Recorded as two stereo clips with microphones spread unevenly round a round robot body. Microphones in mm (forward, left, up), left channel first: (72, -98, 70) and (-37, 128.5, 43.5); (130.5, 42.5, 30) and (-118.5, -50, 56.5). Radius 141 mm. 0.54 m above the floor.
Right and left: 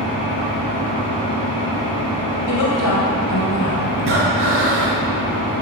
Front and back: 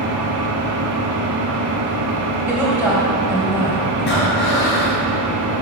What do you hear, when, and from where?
0.0 s an engine running: 135° right, 1.9 m
2.5 s a woman speaking: 75° right, 3 m
4.0 s breathing: 75° left, 2 m